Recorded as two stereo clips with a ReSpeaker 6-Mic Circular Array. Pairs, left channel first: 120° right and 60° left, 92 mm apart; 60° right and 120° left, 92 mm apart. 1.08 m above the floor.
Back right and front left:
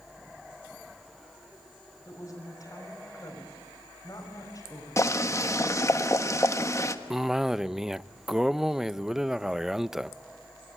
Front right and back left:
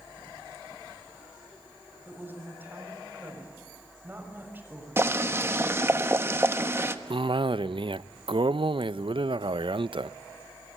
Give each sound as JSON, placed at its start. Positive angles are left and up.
{"t": 2.0, "sound": "a woman speaking", "azimuth_deg": -170, "distance_m": 6.5}
{"t": 5.0, "sound": "boiling", "azimuth_deg": -175, "distance_m": 1.2}
{"t": 7.1, "sound": "a cough", "azimuth_deg": 145, "distance_m": 0.5}